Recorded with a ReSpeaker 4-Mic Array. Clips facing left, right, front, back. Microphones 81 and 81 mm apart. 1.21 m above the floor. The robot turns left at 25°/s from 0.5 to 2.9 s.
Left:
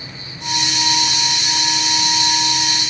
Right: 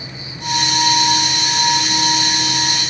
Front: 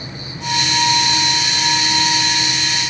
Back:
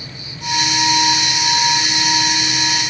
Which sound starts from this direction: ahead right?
An insect, at 0.0 s.